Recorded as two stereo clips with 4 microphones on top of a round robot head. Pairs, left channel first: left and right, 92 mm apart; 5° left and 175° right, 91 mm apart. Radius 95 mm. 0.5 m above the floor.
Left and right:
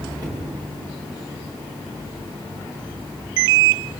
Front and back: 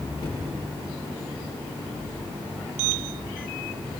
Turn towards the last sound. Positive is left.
turn(degrees=-50)